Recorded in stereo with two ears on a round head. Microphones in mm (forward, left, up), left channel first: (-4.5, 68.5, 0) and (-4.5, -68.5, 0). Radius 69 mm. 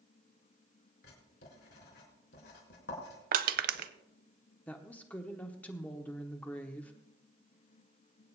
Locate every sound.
1.0 s writing: 75° left (ahead or behind), 3.5 m
3.3 s crushing: 60° right (ahead or behind), 0.6 m
4.7 s a woman speaking: 10° left (ahead or behind), 0.9 m